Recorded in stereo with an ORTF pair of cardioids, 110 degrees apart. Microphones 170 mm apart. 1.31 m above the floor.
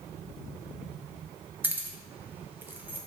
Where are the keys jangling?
15° right, 0.6 m.